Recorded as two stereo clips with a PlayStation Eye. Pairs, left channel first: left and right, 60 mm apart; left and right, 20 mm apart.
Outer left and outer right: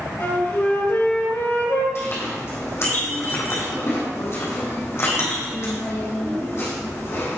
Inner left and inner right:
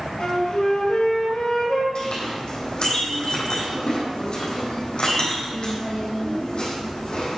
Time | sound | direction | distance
0.2 | a flute | 50° left (ahead or behind) | 3.5 m
1.9 | a clink | 45° left (ahead or behind) | 4.5 m